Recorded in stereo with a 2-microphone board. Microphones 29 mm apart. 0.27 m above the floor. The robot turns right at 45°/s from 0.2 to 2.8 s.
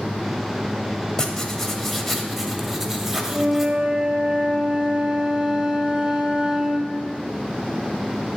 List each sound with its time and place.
1.2 s writing: 15° left (ahead or behind), 0.7 m; by 3.8 s 10° right (ahead or behind), 0.7 m
3.3 s a flute: 25° right (ahead or behind), 1.4 m